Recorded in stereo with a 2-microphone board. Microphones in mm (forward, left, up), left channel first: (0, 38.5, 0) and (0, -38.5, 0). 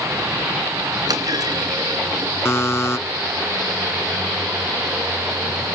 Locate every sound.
1.1 s a clunk: 60° right (ahead or behind), 3 m
2.5 s a buzzer: 40° left (ahead or behind), 0.7 m